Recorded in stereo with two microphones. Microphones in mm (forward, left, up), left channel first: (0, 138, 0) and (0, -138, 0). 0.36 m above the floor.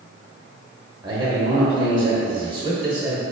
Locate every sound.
1.0 s a man speaking: 15° right (ahead or behind), 0.9 m